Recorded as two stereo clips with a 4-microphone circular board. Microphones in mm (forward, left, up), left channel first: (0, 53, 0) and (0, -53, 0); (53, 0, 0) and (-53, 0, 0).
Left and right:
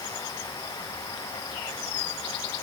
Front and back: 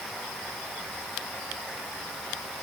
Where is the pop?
No pop in this recording.